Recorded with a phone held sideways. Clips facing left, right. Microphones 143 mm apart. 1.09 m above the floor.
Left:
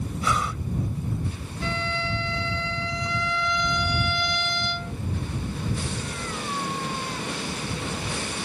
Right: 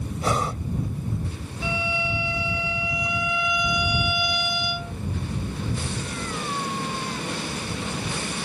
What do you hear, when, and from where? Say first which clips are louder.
0.2 s breathing: right 3 dB; 40° right (ahead or behind)
1.6 s a violin: right 1 dB; 10° right (ahead or behind)